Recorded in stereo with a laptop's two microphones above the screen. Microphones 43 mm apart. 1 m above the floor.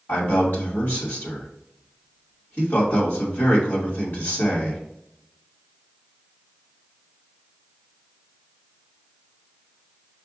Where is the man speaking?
70° left (ahead or behind), 2.5 m.